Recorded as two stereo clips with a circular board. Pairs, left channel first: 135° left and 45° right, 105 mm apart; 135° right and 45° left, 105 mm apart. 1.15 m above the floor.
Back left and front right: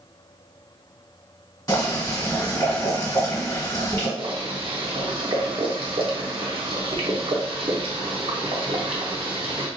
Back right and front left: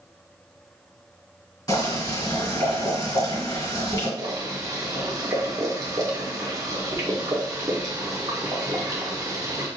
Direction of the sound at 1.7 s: Straight behind.